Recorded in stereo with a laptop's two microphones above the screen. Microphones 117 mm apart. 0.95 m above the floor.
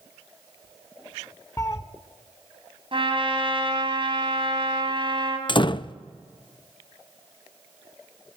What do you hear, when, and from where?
1.6 s a cat meowing: 25° left (ahead or behind), 0.6 m
2.9 s a trumpet: 50° right (ahead or behind), 4 m
5.5 s a door slam: 45° left (ahead or behind), 0.5 m